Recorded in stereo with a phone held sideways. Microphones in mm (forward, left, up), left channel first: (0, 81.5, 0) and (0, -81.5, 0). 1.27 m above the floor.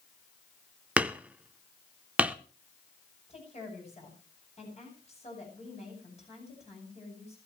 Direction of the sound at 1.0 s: 10° right (ahead or behind).